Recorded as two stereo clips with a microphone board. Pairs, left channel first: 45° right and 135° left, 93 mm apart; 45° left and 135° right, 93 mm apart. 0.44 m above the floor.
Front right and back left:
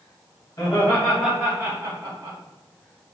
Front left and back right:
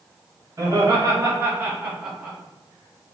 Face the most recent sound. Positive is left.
turn(degrees=135)